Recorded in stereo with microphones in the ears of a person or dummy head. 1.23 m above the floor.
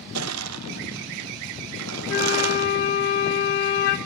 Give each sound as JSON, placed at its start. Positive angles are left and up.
{"t": 0.1, "sound": "crushing", "side_deg": -80, "distance_m": 0.8}
{"t": 2.1, "sound": "a flute", "side_deg": 40, "distance_m": 1.2}